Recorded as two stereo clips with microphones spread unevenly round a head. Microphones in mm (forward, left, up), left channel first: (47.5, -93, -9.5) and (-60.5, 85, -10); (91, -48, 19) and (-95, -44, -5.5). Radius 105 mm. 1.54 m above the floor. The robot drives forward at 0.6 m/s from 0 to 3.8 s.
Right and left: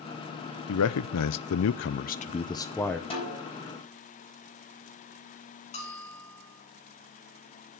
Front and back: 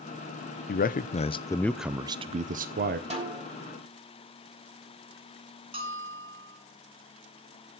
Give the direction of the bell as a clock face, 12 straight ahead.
4 o'clock.